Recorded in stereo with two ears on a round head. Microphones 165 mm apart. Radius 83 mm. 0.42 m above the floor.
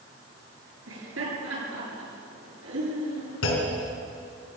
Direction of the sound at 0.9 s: 80° right.